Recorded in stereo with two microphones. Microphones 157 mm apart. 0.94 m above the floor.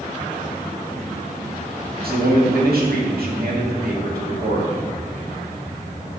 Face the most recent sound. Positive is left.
turn(degrees=-75)  # may be behind; listen again after turning